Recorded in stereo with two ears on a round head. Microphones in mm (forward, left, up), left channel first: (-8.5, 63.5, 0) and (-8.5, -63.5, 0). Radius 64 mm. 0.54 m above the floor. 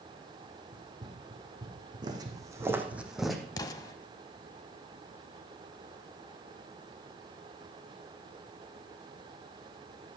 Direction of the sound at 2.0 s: 35° right (ahead or behind).